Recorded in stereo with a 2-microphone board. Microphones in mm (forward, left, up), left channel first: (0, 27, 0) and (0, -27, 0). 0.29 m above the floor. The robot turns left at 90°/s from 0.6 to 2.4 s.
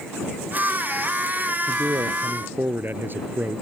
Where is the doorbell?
No doorbell in this recording.